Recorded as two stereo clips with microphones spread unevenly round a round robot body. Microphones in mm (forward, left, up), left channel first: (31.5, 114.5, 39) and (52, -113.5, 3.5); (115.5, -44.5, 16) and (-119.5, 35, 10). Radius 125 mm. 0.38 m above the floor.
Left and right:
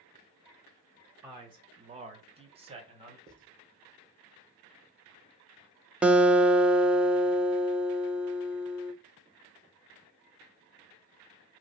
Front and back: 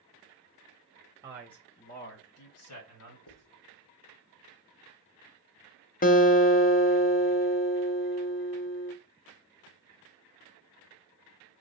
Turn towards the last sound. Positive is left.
turn(degrees=-20)